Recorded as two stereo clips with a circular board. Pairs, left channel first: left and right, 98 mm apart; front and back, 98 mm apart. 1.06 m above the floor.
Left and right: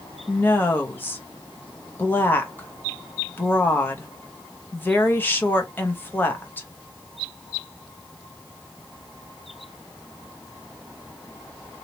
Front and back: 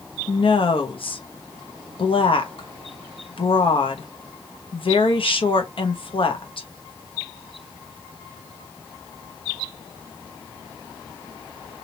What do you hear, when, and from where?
0.3 s a woman speaking: 20° left, 1.0 m